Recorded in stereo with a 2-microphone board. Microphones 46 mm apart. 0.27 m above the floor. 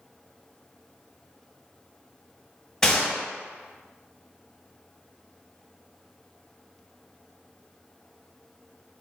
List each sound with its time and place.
2.8 s a gunshot: 10° left (ahead or behind), 1.4 m